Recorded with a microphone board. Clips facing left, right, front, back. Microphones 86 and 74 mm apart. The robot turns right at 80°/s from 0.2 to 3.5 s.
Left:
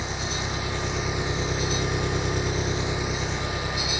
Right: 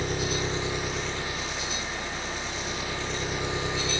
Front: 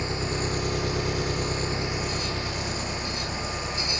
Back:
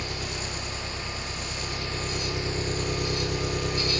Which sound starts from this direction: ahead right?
An engine running, at 0.0 s.